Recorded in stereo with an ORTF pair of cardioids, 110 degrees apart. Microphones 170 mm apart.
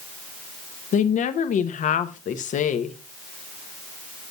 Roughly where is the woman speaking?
Ahead left.